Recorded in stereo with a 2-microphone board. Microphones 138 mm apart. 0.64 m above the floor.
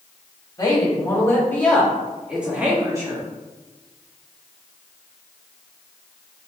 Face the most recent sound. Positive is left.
turn(degrees=-30)  # may be behind; listen again after turning